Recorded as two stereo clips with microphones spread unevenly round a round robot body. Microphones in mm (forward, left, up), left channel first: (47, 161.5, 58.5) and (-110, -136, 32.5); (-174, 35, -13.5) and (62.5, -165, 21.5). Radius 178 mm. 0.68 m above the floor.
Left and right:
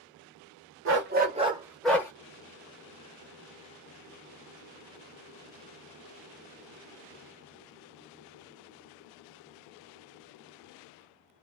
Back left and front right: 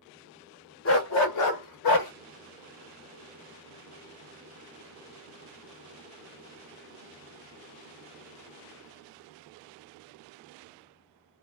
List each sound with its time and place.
0.8 s a dog barking: 170° right, 1.1 m; by 2.1 s 145° left, 1.2 m